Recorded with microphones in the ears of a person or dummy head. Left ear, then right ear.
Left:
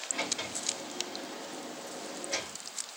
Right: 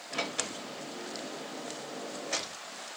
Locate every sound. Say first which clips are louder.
0.1 s a sliding door: right 1 dB; 35° right (ahead or behind), 0.8 m